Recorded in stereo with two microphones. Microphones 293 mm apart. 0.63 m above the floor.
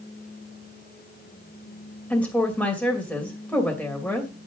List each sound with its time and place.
2.1 s a woman speaking: 5° left (ahead or behind), 2.5 m